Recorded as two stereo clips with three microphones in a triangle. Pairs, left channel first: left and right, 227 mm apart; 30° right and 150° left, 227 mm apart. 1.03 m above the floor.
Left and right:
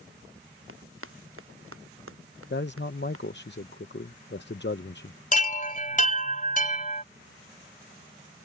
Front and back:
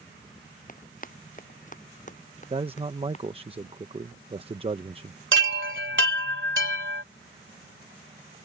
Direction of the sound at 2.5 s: 95° left.